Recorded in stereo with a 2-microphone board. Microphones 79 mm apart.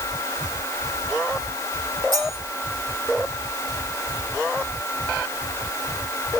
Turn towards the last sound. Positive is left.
turn(degrees=-45)  # may be behind; listen again after turning